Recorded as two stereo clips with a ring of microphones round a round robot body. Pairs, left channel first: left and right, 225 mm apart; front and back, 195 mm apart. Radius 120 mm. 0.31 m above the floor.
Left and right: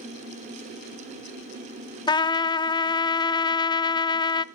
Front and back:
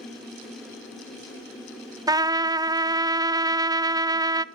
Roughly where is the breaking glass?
I don't hear breaking glass.